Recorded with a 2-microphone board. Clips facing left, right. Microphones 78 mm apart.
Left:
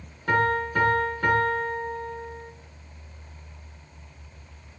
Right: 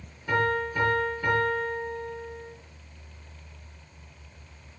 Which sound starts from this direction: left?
A piano, at 0.3 s.